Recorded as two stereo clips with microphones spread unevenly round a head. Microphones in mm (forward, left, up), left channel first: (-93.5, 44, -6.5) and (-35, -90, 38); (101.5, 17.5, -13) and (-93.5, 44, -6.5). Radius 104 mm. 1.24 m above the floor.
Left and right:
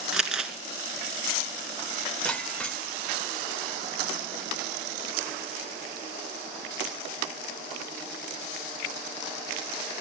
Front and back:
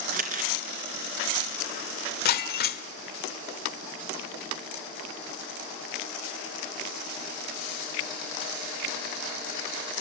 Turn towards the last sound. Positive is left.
turn(degrees=15)